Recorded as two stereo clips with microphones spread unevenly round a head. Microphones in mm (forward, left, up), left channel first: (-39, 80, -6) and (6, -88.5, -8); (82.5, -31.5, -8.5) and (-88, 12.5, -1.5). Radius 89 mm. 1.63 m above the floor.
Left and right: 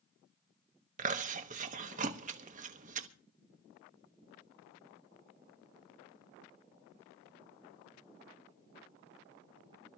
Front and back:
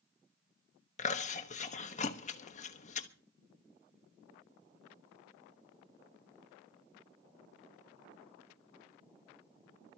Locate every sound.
1.0 s chewing: 50° right, 1.2 m